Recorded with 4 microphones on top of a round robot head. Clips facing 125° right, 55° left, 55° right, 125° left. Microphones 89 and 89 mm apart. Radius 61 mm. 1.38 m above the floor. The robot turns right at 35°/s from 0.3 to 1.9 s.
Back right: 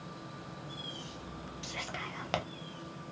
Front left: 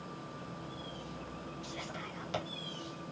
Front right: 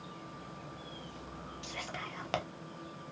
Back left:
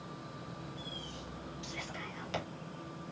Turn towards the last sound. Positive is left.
turn(degrees=-90)